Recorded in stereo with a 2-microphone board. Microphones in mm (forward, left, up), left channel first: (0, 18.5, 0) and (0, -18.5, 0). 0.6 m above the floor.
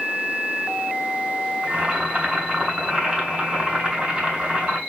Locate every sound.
1.6 s boiling: 25° right (ahead or behind), 1.7 m